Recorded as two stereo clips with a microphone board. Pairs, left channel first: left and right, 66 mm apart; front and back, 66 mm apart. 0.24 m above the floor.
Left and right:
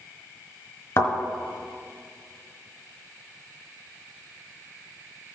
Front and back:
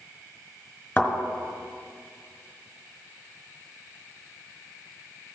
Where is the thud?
65° left, 1.5 m.